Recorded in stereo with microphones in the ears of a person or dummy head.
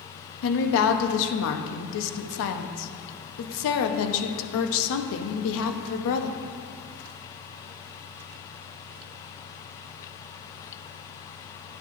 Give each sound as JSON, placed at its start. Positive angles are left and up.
{"t": 0.4, "sound": "a woman speaking", "side_deg": 70, "distance_m": 0.6}